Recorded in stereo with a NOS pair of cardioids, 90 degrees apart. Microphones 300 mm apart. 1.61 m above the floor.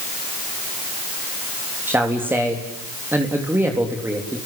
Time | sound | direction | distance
1.9 | a man speaking | 5° right | 3.5 m